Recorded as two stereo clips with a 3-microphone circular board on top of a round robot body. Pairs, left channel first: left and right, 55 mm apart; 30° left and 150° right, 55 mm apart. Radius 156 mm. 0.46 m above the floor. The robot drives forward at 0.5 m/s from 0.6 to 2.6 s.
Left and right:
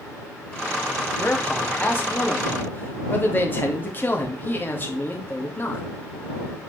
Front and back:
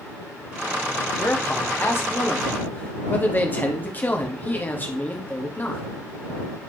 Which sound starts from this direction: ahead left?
A man speaking, at 1.2 s.